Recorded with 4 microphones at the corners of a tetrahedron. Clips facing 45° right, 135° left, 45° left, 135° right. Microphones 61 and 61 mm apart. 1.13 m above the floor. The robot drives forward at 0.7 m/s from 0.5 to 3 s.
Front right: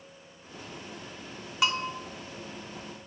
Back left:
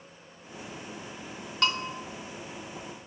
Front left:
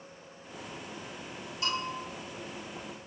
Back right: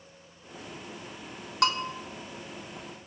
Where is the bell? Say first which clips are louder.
Front right 1 dB, back right 7 dB; 125° right, 0.5 m; by 1.9 s 140° right, 0.6 m.